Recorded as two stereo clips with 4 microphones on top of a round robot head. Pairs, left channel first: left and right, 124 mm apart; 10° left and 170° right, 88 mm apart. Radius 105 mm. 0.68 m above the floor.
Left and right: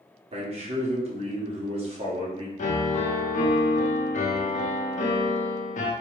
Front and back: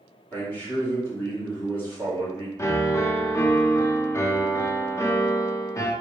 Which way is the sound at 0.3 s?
60° right.